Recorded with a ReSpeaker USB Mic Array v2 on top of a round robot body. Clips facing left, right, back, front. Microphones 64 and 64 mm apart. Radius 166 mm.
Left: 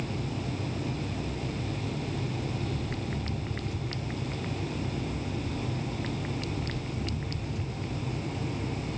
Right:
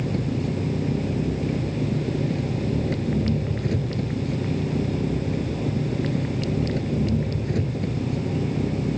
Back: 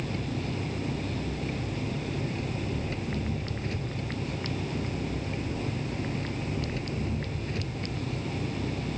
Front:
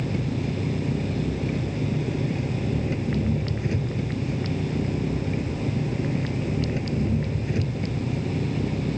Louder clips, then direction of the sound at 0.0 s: Right 8 dB, front 5 dB; 70° right.